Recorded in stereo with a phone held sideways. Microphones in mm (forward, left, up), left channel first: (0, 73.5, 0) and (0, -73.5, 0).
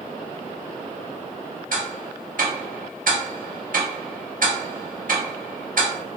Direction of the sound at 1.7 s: 65° right (ahead or behind).